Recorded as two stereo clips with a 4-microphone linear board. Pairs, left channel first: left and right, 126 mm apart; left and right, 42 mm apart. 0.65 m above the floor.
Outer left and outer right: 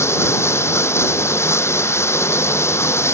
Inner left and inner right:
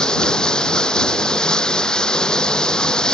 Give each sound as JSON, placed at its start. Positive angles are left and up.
{"t": 0.0, "sound": "running water", "side_deg": 20}